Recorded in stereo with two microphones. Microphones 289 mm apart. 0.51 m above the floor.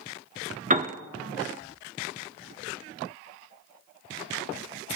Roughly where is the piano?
Right.